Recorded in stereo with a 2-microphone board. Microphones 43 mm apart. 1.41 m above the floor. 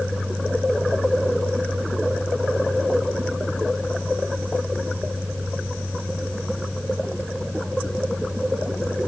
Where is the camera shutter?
I don't hear a camera shutter.